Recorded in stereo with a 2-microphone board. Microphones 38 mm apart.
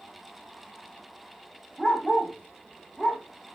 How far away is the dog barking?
About 6 m.